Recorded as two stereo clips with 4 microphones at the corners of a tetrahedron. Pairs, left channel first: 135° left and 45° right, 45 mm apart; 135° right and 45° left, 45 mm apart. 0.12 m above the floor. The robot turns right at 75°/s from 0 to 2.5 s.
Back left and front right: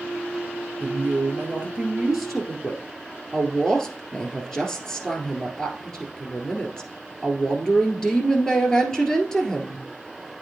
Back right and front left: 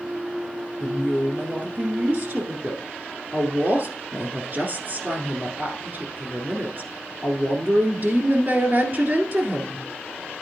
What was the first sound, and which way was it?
A woman speaking, 65° right.